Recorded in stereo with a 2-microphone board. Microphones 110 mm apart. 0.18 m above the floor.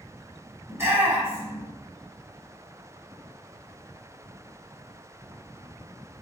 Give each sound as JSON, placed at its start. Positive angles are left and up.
{"t": 0.7, "sound": "a shout", "side_deg": -20, "distance_m": 1.0}